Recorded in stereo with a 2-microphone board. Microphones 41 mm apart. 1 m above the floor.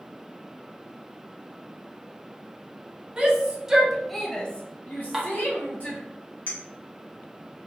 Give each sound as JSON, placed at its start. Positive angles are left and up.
{"t": 3.2, "sound": "a shout", "side_deg": -25, "distance_m": 1.0}
{"t": 5.1, "sound": "dishes clattering", "side_deg": -10, "distance_m": 0.9}
{"t": 6.5, "sound": "a clink", "side_deg": 40, "distance_m": 1.0}